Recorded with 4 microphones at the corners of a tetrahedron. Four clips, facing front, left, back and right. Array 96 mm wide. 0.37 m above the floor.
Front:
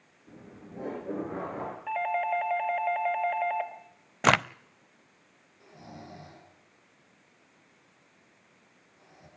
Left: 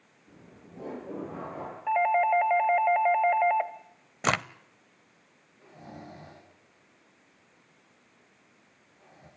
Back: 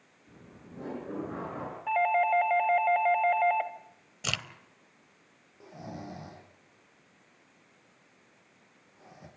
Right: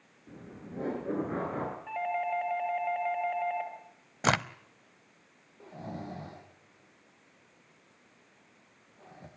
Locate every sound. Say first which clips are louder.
0.3 s laughter: right 6 dB, front 4 dB; 65° right, 7.5 m; by 1.8 s 75° right, 7 m
1.9 s a doorbell: left 11 dB, back 4 dB; 100° left, 2 m
4.2 s a crack: even, front 15 dB; 5° right, 0.5 m
5.6 s snoring: right 5 dB, back 5 dB; 120° right, 7 m